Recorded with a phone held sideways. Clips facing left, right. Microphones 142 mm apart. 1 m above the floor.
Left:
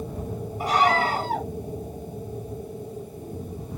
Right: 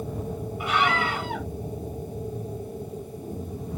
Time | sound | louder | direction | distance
0.6 | a scream | left 4 dB | 40° left (ahead or behind) | ?